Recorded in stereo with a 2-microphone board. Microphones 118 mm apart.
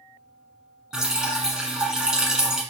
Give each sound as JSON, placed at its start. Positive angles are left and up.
{"t": 0.9, "sound": "dripping", "side_deg": -5, "distance_m": 0.9}